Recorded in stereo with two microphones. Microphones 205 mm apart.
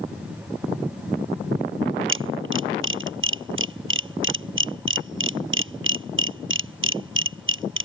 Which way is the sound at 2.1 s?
80° right.